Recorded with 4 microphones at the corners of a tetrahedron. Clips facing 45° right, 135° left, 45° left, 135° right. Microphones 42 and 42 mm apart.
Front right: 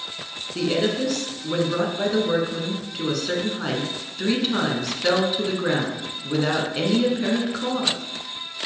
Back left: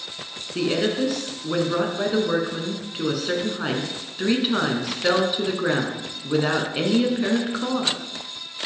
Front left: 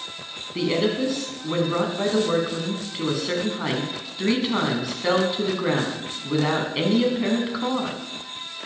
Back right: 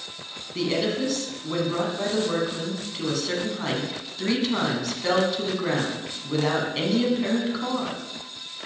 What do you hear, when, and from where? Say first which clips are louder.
0.6 s a woman speaking: even, front left 2 dB; 80° left, 1.2 m